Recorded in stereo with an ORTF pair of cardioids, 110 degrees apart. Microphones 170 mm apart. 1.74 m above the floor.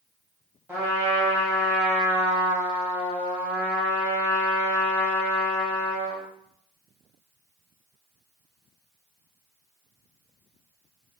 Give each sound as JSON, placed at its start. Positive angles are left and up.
{"t": 0.7, "sound": "a trumpet", "azimuth_deg": -10, "distance_m": 1.6}